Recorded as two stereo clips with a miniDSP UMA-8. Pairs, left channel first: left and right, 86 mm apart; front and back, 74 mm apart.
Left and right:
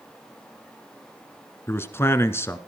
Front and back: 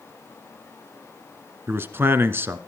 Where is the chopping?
No chopping in this recording.